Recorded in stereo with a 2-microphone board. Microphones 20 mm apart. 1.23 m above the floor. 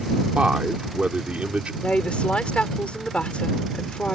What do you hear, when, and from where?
0.3 s a man speaking: 75° right (ahead or behind)
1.8 s a woman speaking: 80° left